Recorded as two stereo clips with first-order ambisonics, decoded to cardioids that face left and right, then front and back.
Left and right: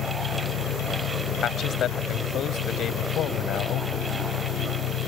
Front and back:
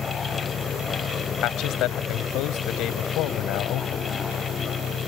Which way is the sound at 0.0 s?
65° left.